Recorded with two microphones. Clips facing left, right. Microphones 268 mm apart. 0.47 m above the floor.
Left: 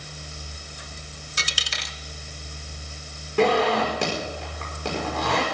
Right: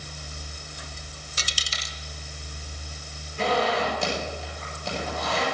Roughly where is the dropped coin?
Left.